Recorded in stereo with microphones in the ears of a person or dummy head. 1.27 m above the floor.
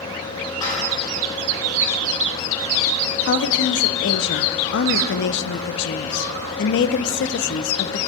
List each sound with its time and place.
0.6 s dishes clattering: 20° left (ahead or behind), 3.5 m
3.3 s a woman speaking: 65° left (ahead or behind), 0.5 m